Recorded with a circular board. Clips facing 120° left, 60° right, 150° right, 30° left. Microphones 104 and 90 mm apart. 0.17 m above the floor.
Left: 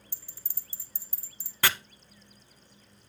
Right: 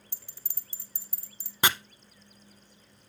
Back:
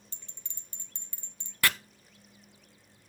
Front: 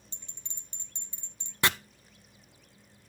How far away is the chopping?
About 0.6 m.